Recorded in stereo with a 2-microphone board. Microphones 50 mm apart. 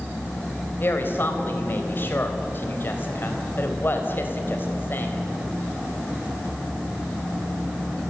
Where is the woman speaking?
45° left (ahead or behind), 3.5 m.